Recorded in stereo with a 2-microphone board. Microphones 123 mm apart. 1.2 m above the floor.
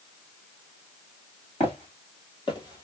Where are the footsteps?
55° left (ahead or behind), 1.9 m; by 2.8 s 30° left (ahead or behind), 1.3 m.